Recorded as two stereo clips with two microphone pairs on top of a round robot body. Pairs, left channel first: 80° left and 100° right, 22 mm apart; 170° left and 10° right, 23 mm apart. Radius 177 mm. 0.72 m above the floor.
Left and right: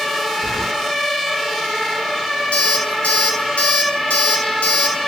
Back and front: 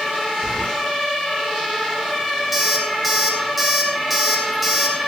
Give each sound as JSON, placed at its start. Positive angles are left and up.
{"t": 0.4, "sound": "keys jangling", "azimuth_deg": 100, "distance_m": 3.0}
{"t": 2.5, "sound": "an alarm clock", "azimuth_deg": 80, "distance_m": 2.5}